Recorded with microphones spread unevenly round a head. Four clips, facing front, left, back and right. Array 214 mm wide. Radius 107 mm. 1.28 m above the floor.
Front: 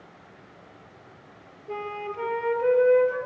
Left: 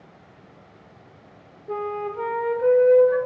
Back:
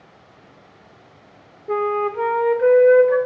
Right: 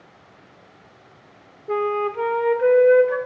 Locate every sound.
1.7 s a flute: 115° right, 4 m